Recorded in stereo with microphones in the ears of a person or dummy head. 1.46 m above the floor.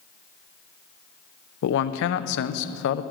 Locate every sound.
1.6 s a man speaking: 65° left (ahead or behind), 0.6 m